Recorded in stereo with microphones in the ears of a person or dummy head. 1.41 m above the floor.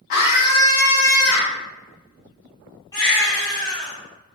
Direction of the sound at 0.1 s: 40° left (ahead or behind).